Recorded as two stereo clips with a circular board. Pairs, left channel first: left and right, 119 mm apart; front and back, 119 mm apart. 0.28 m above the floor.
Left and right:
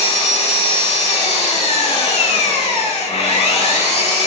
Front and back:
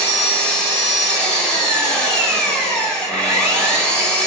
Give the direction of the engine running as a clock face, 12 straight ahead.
9 o'clock.